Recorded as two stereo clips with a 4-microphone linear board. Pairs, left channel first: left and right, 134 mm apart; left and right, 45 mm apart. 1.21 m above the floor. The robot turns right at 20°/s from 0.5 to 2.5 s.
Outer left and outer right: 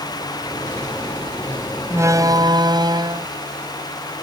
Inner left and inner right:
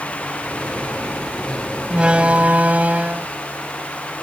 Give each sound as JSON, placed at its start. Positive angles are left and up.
{"t": 1.9, "sound": "a door slam", "side_deg": -20}